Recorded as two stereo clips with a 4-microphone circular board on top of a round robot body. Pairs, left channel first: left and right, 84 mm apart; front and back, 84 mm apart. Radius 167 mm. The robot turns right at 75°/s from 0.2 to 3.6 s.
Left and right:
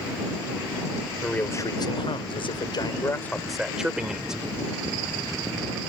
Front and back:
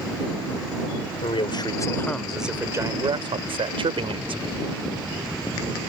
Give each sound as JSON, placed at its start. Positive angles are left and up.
{"t": 1.2, "sound": "a man speaking", "azimuth_deg": 5}